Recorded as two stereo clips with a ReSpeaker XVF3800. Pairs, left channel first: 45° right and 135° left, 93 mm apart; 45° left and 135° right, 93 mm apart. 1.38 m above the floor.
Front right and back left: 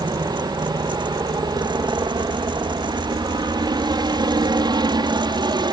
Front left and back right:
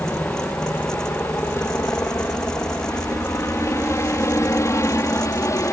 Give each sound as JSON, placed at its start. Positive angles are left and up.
{"t": 0.0, "sound": "a helicopter", "azimuth_deg": 105}